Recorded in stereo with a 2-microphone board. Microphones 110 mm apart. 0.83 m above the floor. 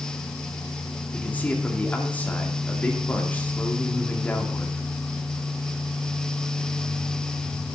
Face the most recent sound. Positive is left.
turn(degrees=15)  # may be behind; listen again after turning